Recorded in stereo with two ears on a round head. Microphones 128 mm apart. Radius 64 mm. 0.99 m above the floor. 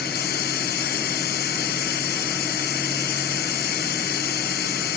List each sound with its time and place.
0.0 s running water: 80° left